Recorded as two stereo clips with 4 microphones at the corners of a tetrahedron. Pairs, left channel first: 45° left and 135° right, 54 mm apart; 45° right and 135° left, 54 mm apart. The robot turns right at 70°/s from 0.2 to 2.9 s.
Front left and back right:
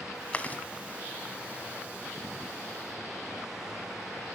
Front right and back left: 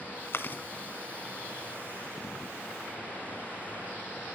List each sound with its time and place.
0.3 s chewing: 20° right, 1.7 m; by 0.6 s 5° left, 1.7 m